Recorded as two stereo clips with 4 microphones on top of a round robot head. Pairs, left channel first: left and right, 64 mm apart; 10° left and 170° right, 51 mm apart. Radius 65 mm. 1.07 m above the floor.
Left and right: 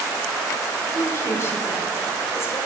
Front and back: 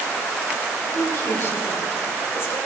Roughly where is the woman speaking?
Ahead left.